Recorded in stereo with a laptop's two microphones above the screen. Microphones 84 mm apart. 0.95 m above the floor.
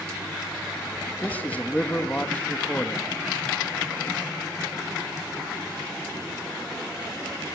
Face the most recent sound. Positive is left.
turn(degrees=20)  # may be behind; listen again after turning